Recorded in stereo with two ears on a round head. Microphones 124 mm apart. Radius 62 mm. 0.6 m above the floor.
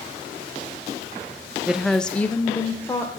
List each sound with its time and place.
1.7 s a woman speaking: 5° right (ahead or behind), 0.6 m; by 3.2 s 20° left (ahead or behind), 1.8 m